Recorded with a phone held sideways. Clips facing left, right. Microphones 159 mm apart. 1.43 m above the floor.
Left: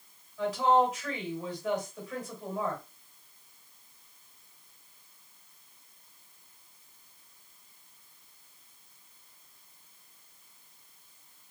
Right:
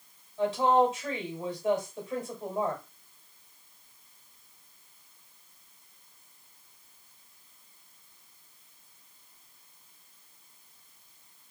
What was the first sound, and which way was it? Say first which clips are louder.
A woman speaking: right 1 dB; 30° right (ahead or behind).